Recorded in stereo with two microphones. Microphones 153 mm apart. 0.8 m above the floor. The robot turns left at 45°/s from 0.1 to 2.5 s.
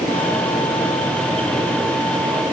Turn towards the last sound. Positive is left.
No sound to turn to.